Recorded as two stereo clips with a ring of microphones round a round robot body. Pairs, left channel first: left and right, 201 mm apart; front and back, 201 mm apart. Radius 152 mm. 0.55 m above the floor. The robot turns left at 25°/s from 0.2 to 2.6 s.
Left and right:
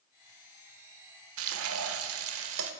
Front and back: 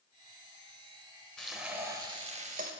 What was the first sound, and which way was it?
Frying, 85° right.